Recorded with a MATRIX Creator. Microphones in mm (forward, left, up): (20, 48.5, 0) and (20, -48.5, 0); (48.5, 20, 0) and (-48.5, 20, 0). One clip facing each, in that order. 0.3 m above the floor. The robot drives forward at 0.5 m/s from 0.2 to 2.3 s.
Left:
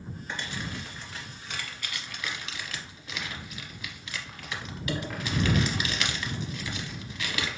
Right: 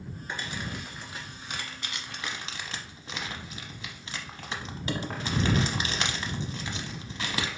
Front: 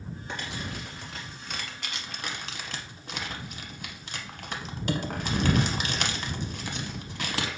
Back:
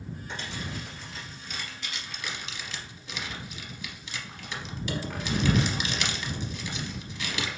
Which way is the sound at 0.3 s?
15° right.